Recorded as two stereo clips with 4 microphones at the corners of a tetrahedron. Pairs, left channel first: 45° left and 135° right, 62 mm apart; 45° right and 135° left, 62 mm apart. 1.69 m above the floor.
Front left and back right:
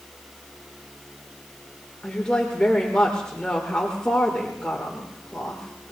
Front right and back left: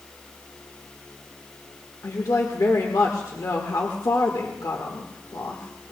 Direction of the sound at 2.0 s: 30° right.